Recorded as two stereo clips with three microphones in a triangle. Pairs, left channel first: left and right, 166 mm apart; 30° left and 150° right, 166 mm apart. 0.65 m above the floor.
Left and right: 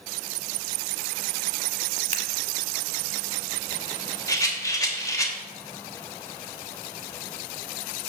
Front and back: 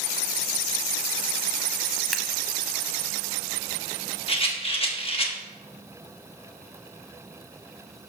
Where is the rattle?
40° left, 1.0 m.